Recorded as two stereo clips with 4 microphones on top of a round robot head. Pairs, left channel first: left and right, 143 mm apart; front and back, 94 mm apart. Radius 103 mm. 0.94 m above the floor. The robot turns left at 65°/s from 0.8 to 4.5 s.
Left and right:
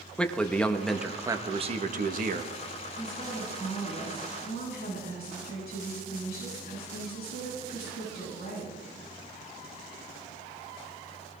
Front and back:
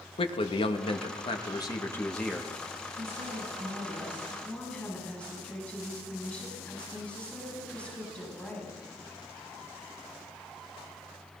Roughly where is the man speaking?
Ahead.